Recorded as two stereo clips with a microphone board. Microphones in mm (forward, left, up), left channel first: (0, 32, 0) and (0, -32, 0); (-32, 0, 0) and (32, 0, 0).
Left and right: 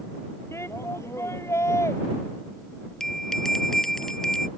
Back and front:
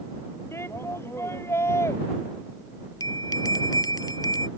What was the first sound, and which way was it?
A shout, 135° left.